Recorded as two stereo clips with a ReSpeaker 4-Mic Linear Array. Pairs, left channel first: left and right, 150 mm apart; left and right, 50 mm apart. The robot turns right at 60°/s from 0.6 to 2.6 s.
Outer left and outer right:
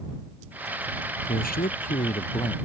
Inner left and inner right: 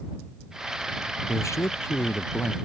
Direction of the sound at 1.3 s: 80° left.